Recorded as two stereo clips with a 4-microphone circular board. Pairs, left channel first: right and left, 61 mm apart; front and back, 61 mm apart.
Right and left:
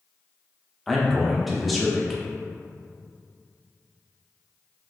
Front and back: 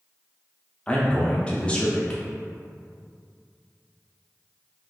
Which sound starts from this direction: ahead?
A man speaking, at 0.9 s.